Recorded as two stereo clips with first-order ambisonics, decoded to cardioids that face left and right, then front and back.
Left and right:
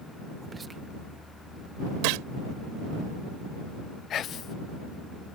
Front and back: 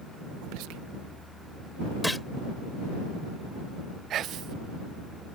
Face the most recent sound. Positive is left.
turn(degrees=135)